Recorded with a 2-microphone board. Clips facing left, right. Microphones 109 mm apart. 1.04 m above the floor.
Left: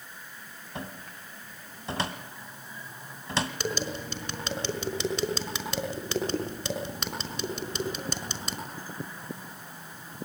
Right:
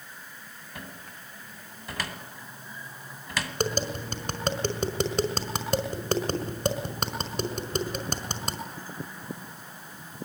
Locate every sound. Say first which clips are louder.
0.8 s a cupboard door: left 4 dB; 30° left (ahead or behind), 2 m
3.6 s tapping: right 3 dB; 50° right (ahead or behind), 5 m